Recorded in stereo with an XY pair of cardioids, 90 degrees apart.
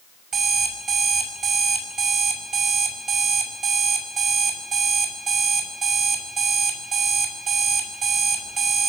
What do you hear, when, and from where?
0.3 s an alarm clock: 65° right, 5.5 m